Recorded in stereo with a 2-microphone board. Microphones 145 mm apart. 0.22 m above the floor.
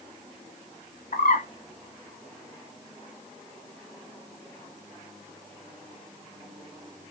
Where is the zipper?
No zipper in this recording.